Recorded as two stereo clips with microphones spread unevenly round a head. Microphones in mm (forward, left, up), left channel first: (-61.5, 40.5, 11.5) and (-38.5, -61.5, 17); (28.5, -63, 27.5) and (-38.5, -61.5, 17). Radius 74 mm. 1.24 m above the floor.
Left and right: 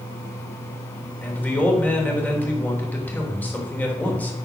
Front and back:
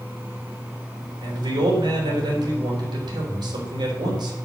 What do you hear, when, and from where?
1.2 s a man speaking: straight behind, 3.5 m